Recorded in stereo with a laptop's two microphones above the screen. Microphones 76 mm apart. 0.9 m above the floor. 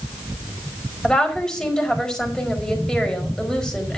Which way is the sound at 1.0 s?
10° left (ahead or behind).